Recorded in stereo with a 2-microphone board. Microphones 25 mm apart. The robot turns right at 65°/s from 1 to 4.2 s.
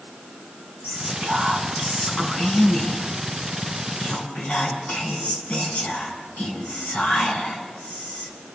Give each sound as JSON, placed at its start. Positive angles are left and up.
{"t": 0.8, "sound": "whispering", "azimuth_deg": -100, "distance_m": 5.5}